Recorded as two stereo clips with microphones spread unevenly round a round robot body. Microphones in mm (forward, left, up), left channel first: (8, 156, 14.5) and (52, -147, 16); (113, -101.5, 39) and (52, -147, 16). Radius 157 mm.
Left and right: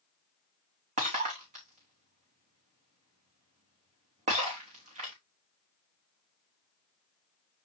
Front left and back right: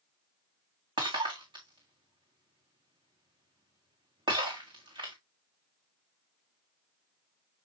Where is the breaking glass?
150° right, 3.5 m.